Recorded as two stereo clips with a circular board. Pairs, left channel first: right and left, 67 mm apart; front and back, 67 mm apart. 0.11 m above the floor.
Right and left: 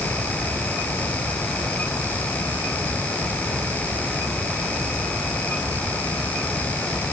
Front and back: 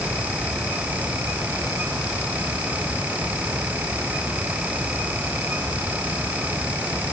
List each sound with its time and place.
Only background noise.